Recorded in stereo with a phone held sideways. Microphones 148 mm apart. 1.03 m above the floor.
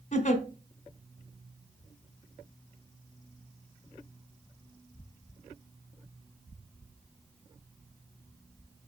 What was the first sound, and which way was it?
A giggle, 50° left (ahead or behind).